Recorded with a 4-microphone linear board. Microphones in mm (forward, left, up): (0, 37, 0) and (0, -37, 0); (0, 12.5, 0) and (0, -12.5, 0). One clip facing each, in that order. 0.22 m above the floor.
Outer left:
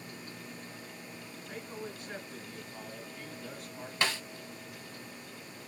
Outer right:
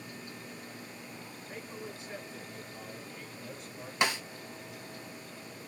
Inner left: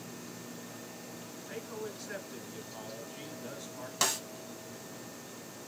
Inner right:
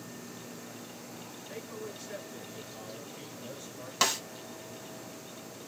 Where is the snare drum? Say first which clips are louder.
Outer right 2 dB, inner right 3 dB; 15° right (ahead or behind), 0.6 m.